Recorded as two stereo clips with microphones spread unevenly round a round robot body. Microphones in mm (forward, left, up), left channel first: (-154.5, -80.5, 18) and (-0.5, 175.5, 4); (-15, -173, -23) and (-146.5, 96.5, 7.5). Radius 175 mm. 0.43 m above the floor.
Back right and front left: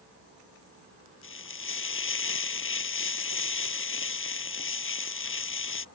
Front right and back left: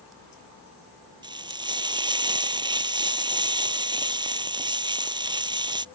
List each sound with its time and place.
1.2 s frying: 170° right